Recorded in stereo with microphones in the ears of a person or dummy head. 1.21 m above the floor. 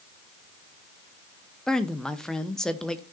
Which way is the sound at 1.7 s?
Centre (ahead or behind).